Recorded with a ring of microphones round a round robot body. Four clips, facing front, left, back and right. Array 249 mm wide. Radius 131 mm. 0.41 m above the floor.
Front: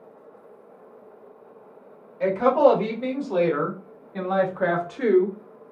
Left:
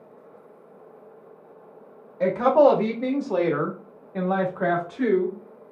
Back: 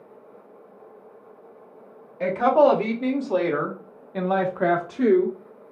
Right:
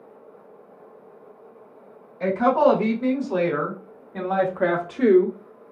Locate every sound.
2.2 s a woman speaking: 115° left, 1.9 m; by 5.4 s 105° right, 1.4 m